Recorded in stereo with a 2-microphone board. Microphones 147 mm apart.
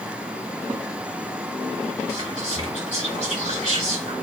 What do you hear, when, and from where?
2.1 s whispering: 50° right (ahead or behind), 1.8 m